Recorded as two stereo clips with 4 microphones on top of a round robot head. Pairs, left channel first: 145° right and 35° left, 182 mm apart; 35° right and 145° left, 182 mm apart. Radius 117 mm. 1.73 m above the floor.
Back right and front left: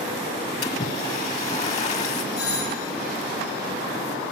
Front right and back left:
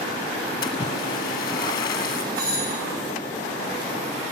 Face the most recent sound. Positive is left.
turn(degrees=-175)